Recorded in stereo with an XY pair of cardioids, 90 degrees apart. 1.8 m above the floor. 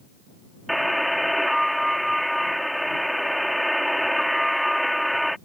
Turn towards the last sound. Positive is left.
turn(degrees=0)